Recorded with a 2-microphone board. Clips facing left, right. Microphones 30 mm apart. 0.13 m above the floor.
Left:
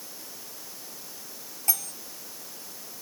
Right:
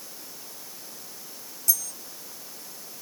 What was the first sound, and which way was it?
Cutlery clinking, 40° left (ahead or behind).